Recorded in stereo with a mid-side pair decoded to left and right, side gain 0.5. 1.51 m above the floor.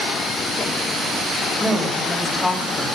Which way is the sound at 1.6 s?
10° left.